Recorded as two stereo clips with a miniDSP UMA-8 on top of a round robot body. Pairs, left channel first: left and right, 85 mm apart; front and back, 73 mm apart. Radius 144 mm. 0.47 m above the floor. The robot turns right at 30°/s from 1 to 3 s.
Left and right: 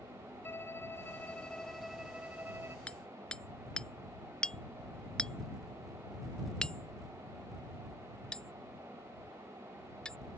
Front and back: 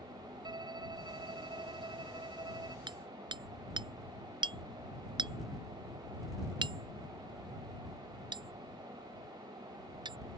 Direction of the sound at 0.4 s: 155° left.